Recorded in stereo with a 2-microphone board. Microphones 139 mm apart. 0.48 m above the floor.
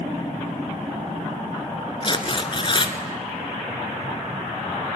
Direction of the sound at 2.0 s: 40° left (ahead or behind).